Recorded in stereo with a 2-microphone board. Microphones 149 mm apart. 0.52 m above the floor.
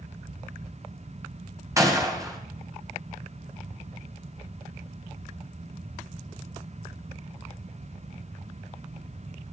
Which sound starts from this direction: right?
A gunshot, at 1.8 s.